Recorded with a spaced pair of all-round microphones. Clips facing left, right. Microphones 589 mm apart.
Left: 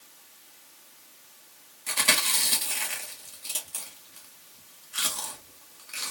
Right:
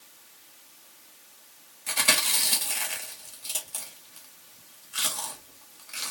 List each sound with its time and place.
1.9 s chewing: 10° right (ahead or behind), 0.9 m